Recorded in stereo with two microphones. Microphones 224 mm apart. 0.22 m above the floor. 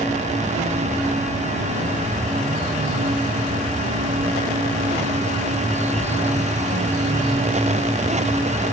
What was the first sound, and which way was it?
Only background noise.